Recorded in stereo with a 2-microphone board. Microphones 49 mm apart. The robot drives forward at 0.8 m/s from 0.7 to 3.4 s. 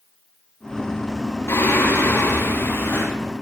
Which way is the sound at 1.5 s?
65° left (ahead or behind).